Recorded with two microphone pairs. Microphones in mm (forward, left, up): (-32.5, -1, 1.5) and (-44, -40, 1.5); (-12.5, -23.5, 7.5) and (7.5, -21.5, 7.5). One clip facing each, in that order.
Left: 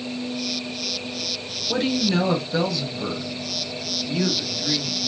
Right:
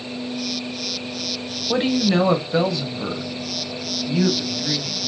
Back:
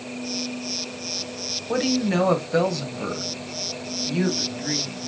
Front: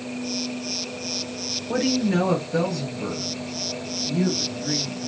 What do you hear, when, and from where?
1.7 s a woman speaking: 120° right, 1.5 m; by 5.1 s straight behind, 2.5 m